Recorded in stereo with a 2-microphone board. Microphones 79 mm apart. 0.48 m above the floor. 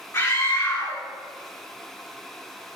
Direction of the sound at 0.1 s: 30° left (ahead or behind).